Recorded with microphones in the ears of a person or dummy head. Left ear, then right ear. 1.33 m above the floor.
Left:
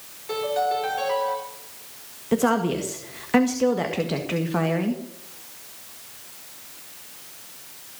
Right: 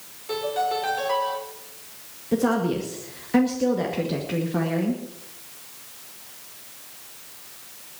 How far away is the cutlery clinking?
No cutlery clinking in this recording.